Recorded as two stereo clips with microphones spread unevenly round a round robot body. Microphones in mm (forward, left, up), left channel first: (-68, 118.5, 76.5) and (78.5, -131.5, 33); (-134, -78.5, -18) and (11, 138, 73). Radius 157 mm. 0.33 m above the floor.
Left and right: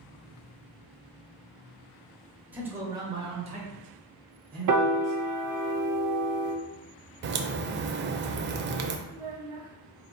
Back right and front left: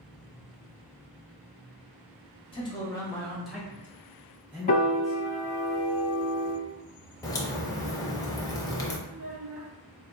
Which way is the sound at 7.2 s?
75° right.